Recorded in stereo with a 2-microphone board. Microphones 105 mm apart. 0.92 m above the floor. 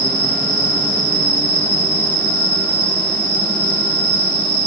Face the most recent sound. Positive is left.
turn(degrees=-30)  # may be behind; listen again after turning